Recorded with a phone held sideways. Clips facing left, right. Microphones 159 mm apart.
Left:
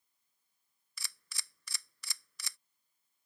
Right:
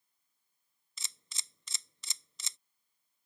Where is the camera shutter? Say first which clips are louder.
Left 1 dB; 20° right (ahead or behind).